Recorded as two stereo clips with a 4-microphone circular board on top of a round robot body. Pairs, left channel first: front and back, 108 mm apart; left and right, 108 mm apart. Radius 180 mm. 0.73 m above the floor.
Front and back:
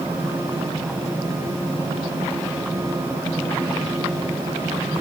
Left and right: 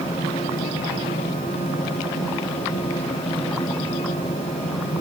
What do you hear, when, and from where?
Only background noise.